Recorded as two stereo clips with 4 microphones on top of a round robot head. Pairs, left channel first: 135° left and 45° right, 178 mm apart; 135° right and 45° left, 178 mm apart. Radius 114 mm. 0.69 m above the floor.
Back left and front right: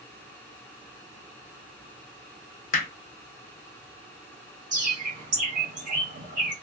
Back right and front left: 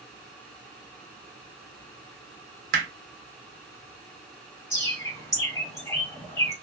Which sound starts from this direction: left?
Hammering, at 2.7 s.